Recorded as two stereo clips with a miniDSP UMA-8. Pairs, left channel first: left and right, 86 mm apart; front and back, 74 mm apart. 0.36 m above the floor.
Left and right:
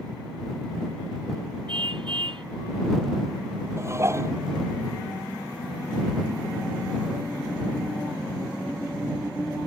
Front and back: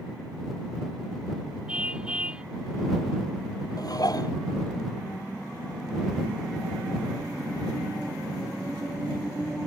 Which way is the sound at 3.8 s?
35° right.